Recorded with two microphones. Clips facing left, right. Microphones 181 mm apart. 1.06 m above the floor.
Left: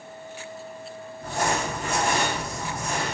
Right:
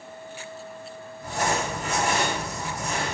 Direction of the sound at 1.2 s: 55° left (ahead or behind).